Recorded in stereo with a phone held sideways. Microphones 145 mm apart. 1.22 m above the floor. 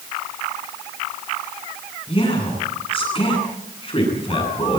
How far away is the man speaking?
About 10 m.